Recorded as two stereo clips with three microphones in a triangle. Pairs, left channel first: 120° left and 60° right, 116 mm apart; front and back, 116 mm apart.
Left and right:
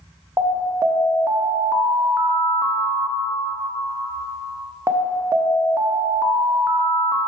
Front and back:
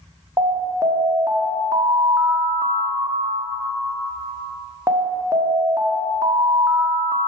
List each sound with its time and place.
0.4 s an alarm: 120° right, 0.7 m